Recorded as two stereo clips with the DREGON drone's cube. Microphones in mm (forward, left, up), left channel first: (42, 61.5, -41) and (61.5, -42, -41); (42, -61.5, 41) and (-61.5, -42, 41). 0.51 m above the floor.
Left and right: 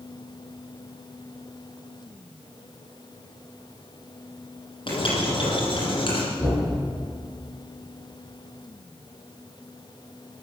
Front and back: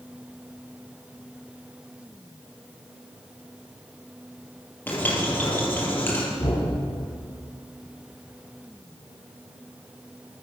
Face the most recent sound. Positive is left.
turn(degrees=30)